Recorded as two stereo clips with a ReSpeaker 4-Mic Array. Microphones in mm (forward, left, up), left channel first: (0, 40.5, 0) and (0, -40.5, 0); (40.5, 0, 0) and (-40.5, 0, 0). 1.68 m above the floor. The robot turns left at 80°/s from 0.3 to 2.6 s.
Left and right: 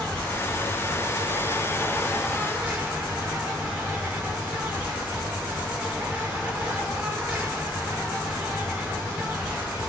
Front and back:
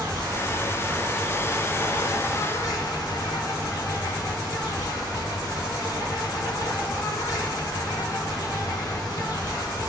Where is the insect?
165° left, 2.5 m; by 9.9 s 20° right, 2.5 m.